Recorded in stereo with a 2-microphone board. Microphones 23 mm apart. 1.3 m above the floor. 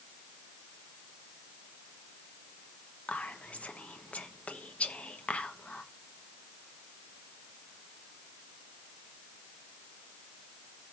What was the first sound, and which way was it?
Whispering, 85° left.